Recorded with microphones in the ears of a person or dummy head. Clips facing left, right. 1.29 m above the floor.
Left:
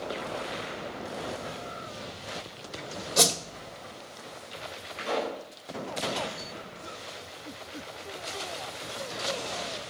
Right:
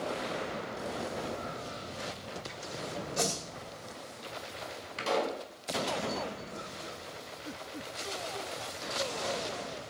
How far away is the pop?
About 4.5 m.